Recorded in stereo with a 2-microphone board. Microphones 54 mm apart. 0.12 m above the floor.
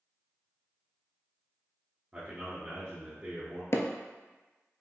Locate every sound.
2.1 s a man speaking: 20° right (ahead or behind), 1.5 m
3.7 s hammering: 60° left (ahead or behind), 0.5 m